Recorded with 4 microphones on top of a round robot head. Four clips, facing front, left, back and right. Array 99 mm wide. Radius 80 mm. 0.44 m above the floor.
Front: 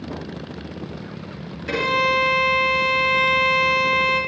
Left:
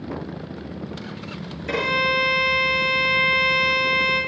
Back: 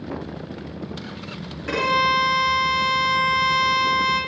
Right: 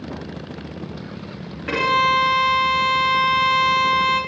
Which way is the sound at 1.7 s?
115° right.